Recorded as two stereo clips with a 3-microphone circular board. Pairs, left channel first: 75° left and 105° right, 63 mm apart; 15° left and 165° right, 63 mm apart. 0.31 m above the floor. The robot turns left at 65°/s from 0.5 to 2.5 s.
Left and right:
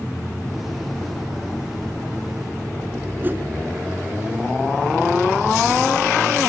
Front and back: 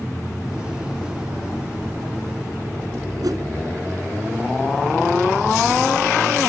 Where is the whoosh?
160° right, 1.8 m.